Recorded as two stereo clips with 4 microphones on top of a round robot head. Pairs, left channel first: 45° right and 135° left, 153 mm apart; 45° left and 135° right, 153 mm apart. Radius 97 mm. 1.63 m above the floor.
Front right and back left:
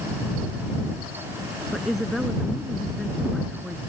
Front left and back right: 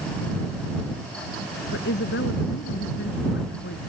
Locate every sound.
1.7 s a woman speaking: 45° left